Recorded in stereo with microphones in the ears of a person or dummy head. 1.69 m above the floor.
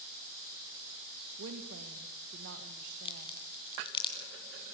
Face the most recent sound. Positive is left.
turn(degrees=25)  # may be behind; listen again after turning